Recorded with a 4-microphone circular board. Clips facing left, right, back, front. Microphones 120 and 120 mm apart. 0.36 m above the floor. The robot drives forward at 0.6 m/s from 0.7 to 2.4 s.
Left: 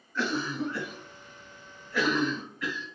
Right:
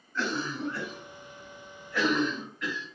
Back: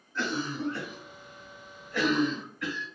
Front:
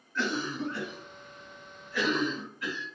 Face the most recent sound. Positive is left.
turn(degrees=175)